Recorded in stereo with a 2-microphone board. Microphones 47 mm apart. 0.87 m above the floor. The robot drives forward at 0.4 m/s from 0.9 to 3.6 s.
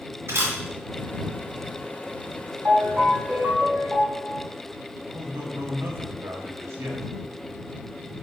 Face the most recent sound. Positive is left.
turn(degrees=-70)  # may be behind; listen again after turning